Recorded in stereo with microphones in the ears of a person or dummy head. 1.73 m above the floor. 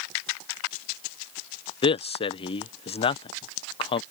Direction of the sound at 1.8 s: 35° left (ahead or behind).